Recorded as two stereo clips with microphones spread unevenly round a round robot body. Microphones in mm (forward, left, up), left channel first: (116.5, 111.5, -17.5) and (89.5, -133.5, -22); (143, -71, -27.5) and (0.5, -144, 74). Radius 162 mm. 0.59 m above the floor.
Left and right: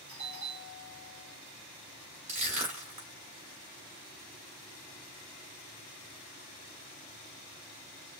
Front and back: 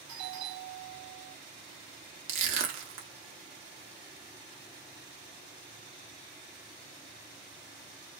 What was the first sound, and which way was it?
A doorbell, 145° right.